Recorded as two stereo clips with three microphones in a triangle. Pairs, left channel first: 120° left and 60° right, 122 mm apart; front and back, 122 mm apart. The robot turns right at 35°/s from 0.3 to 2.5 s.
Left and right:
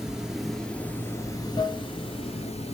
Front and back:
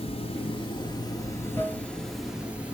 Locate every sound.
0.0 s running water: 25° left, 1.9 m; by 2.8 s 105° left, 1.9 m